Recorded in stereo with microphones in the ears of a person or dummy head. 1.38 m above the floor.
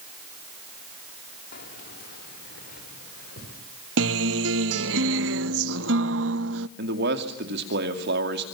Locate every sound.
1.5 s keys jangling: 55° left (ahead or behind), 2.5 m; by 3.6 s 60° left (ahead or behind), 4.5 m
4.0 s a guitar: 75° right (ahead or behind), 0.7 m
6.8 s a man speaking: 65° right (ahead or behind), 2.5 m